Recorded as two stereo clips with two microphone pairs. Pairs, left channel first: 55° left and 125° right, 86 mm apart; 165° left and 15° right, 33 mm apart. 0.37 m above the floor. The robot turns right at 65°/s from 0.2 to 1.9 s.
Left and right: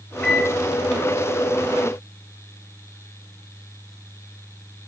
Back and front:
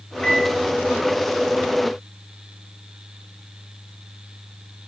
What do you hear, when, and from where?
0.2 s a microwave: 140° left, 0.7 m; by 0.6 s 160° left, 0.7 m